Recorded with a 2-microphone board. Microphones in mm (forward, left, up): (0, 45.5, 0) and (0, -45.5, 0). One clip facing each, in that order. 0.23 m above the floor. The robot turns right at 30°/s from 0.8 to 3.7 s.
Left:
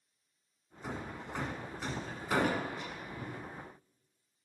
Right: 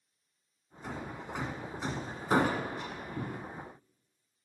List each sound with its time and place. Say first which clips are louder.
0.8 s hammering: right 1 dB; 5° left (ahead or behind), 2 m; by 3.4 s 55° right (ahead or behind), 2 m